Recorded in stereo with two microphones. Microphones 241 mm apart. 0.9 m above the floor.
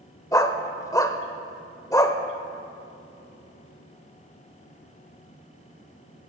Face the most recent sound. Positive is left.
turn(degrees=15)  # may be behind; listen again after turning